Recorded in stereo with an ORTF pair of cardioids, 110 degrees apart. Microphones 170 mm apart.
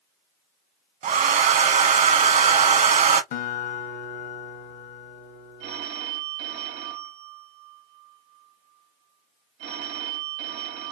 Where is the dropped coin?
No dropped coin in this recording.